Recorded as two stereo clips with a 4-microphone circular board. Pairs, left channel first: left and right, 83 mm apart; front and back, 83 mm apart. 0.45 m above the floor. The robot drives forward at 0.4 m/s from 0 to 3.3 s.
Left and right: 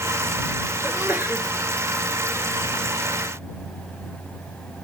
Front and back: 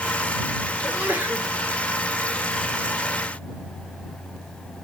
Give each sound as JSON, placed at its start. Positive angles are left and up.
{"t": 0.8, "sound": "a sneeze", "azimuth_deg": -125, "distance_m": 1.4}